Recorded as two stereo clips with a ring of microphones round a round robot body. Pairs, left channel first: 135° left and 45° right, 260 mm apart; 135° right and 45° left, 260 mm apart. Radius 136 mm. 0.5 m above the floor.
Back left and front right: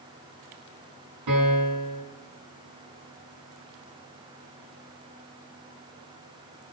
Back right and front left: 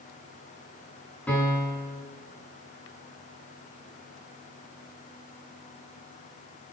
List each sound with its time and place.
1.3 s a piano: 50° right, 6.5 m